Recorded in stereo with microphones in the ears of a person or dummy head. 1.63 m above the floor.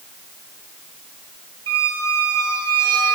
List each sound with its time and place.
1.7 s a squeak: 25° right (ahead or behind), 3 m